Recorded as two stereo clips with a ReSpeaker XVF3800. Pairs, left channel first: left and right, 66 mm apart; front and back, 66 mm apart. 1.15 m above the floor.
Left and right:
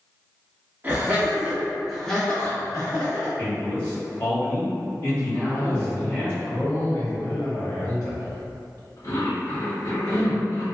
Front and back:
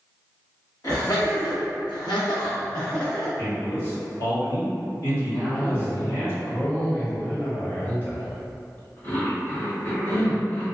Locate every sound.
0.8 s laughter: 30° right, 1.4 m; by 3.3 s 70° left, 0.9 m
3.4 s a man speaking: 25° left, 1.8 m
5.3 s a cough: 55° left, 1.2 m